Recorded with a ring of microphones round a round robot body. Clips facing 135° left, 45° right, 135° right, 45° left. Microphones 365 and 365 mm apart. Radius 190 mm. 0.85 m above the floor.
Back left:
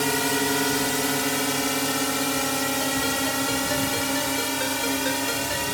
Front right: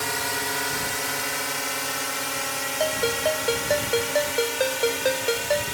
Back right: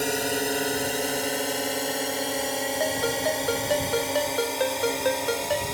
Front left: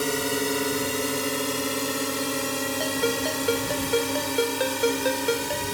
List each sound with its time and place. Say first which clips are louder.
0.0 s a drone: back left 8 dB, front left 1 dB; 125° left; by 5.7 s 110° left
2.8 s a ringtone: front right 1 dB, front left 1 dB; 10° right